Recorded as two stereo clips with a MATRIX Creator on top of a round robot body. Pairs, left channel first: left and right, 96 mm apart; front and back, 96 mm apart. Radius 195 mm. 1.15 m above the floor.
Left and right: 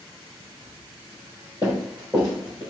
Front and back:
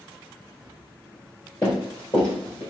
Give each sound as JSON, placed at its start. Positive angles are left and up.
{"t": 1.6, "sound": "running footsteps", "azimuth_deg": -70, "distance_m": 1.2}